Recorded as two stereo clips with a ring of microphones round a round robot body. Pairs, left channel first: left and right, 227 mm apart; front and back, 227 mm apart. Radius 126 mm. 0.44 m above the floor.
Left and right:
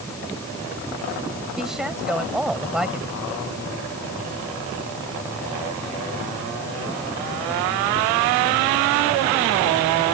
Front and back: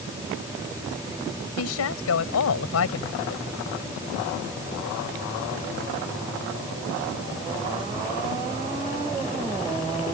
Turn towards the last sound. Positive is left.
turn(degrees=-5)